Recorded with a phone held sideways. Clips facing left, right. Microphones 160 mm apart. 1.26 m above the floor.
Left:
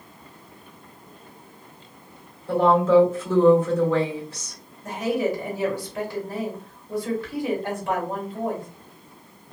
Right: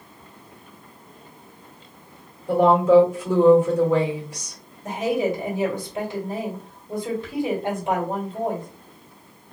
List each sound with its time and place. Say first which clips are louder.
2.5 s a woman speaking: right 2 dB; 15° right (ahead or behind), 1.4 m
4.8 s a woman speaking: right 1 dB; 20° right (ahead or behind), 1.5 m